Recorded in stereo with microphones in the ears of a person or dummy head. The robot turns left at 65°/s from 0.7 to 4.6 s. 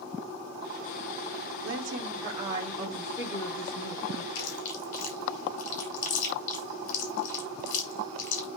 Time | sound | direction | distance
1.6 | a woman speaking | 100° right | 1.4 m
4.3 | chewing | 60° left (ahead or behind) | 4 m